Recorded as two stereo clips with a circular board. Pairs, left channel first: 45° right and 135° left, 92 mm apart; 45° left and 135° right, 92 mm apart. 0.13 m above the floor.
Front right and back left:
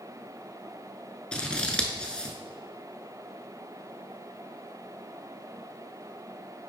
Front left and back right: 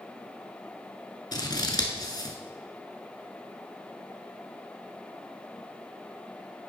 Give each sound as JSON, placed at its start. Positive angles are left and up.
{"t": 1.3, "sound": "scissors", "azimuth_deg": 30, "distance_m": 0.9}